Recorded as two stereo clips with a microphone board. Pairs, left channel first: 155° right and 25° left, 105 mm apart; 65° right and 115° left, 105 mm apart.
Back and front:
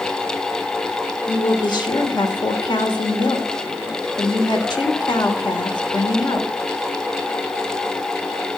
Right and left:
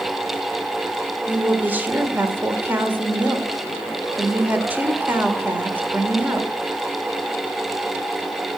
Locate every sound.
1.3 s a woman speaking: straight behind, 1.6 m